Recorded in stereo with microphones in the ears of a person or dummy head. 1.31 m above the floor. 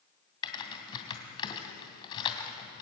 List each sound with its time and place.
0.4 s typing on a keyboard: 25° left (ahead or behind), 2.5 m